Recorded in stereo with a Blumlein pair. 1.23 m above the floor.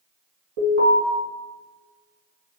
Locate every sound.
0.6 s an alarm: 50° right, 1.7 m